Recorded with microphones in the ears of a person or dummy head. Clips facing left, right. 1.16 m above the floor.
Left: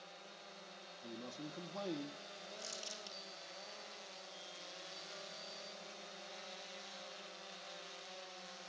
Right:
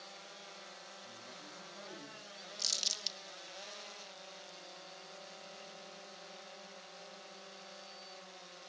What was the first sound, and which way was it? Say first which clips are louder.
A man speaking: left 6 dB; 60° left (ahead or behind).